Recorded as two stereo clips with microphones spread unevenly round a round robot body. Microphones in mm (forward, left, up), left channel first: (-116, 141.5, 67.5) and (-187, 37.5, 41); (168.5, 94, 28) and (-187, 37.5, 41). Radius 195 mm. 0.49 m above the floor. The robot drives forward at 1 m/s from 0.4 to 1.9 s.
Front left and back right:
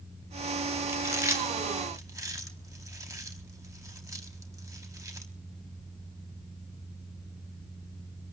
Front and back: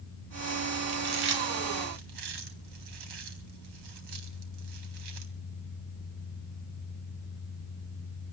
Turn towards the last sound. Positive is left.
turn(degrees=175)